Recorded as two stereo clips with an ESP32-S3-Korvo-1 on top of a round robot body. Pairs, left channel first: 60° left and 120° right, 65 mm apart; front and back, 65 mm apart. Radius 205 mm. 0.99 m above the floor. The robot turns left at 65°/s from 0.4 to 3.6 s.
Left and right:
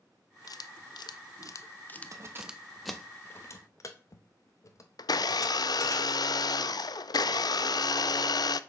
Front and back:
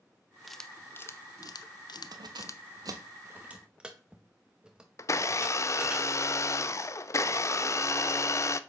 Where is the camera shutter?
90° left, 0.6 m; by 2.6 s 50° right, 0.6 m.